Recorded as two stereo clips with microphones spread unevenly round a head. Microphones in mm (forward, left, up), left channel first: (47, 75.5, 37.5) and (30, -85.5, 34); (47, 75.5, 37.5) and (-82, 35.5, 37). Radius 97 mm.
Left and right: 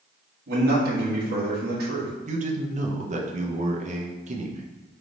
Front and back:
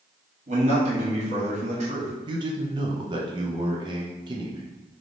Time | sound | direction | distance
0.5 | a man speaking | 120° right | 1.5 m
2.3 | a man speaking | 120° right | 0.7 m